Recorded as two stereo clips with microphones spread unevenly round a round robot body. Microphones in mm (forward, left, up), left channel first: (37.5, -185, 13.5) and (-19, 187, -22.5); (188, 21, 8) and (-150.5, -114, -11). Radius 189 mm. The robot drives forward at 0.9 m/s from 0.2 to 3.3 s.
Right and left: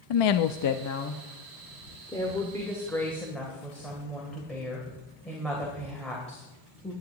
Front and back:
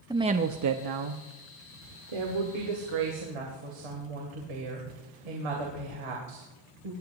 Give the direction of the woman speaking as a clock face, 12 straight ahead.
3 o'clock.